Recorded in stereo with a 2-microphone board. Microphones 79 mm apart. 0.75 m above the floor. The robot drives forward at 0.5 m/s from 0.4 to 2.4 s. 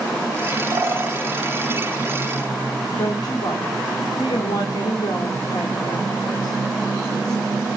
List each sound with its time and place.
0.7 s a bird: 35° right (ahead or behind), 2 m; by 1.2 s 30° right (ahead or behind), 2.5 m
3.0 s a woman speaking: 70° left (ahead or behind), 2 m